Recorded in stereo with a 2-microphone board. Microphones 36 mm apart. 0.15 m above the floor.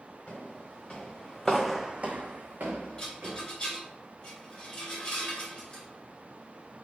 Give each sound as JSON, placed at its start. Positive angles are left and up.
{"t": 0.3, "sound": "footsteps", "side_deg": 40, "distance_m": 1.8}
{"t": 3.0, "sound": "a rattle", "side_deg": 25, "distance_m": 1.5}